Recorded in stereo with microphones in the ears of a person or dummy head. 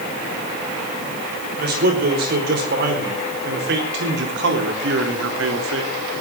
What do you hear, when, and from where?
1.6 s a man speaking: 50° right (ahead or behind), 5.5 m; by 5.9 s 75° right (ahead or behind), 3 m